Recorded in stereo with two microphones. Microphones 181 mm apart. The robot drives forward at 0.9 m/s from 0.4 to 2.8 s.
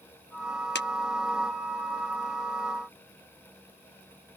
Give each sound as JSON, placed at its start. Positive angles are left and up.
{"t": 0.8, "sound": "a clap", "side_deg": 75}